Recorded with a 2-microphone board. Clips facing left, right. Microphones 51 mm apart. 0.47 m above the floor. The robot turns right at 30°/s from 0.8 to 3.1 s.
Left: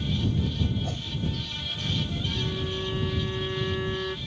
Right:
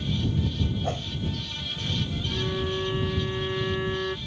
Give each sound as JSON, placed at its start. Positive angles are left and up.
{"t": 0.8, "sound": "a whoosh", "side_deg": -45}
{"t": 2.3, "sound": "a violin", "side_deg": -35}